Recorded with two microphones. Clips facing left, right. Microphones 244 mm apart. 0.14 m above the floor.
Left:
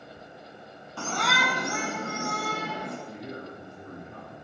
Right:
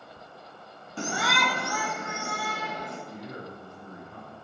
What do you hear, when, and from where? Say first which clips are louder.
1.0 s a shout: right 1 dB; 20° right (ahead or behind), 1.0 m; by 3.0 s 55° left (ahead or behind), 2 m
3.1 s a man speaking: left 1 dB; 35° left (ahead or behind), 5 m